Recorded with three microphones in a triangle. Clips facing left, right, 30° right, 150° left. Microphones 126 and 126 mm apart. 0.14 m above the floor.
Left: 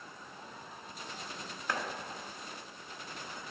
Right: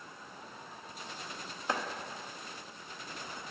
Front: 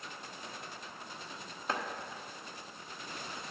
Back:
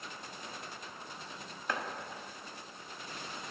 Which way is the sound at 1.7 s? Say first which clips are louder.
Right 2 dB, front 1 dB; 55° right.